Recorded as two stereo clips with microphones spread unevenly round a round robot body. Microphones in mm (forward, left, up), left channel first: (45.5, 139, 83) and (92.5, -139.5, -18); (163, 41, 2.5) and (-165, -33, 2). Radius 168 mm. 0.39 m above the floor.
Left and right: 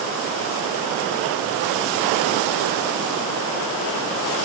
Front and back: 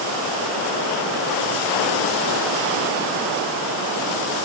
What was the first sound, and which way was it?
Only background noise.